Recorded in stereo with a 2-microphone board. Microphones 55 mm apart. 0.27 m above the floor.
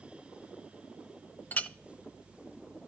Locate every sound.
1.5 s a clink: 30° left (ahead or behind), 0.6 m